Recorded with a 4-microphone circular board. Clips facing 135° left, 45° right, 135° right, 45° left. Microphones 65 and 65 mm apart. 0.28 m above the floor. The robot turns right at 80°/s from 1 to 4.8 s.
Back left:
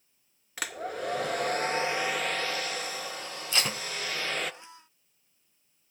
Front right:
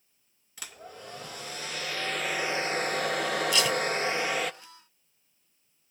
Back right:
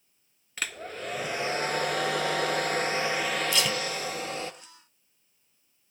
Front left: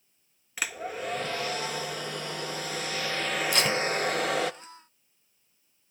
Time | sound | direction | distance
0.6 | a hair dryer | 125° left | 0.6 m
3.5 | tape being pulled | 80° left | 0.5 m